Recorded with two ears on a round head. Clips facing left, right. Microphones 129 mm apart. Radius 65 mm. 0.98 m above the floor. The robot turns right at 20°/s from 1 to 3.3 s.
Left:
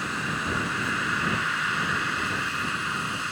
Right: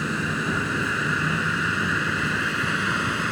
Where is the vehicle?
95° right; by 3.3 s 45° right.